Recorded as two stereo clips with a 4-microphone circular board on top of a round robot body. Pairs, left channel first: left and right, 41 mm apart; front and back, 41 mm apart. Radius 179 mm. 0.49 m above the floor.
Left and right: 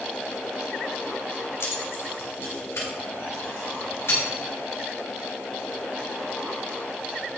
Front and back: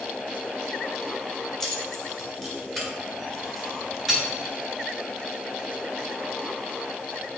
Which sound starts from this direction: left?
Keys jangling, at 1.6 s.